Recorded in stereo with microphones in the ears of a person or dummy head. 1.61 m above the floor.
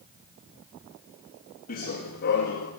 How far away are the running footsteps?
About 5.5 m.